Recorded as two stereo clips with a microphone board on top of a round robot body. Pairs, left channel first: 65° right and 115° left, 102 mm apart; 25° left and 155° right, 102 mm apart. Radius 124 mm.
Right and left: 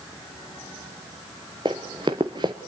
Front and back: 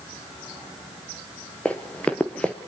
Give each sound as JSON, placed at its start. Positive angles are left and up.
{"t": 1.6, "sound": "running footsteps", "azimuth_deg": 95, "distance_m": 0.8}